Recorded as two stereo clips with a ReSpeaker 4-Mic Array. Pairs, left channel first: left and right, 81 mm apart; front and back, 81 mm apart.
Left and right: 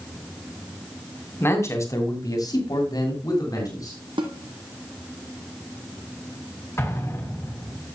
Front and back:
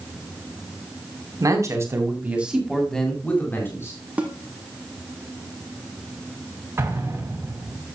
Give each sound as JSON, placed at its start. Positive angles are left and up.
{"t": 1.4, "sound": "a man speaking", "azimuth_deg": 145, "distance_m": 3.0}
{"t": 4.2, "sound": "a snare drum", "azimuth_deg": -105, "distance_m": 2.0}
{"t": 6.8, "sound": "an explosion", "azimuth_deg": 135, "distance_m": 2.5}